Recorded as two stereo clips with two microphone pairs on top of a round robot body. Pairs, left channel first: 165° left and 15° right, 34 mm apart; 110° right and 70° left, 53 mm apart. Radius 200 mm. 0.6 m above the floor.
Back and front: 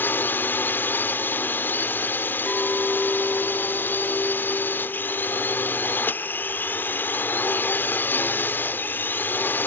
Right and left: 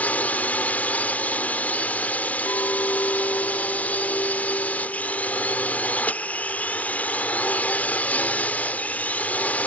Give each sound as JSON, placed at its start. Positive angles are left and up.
{"t": 0.0, "sound": "a drone", "azimuth_deg": -170}
{"t": 2.5, "sound": "a clink", "azimuth_deg": -120}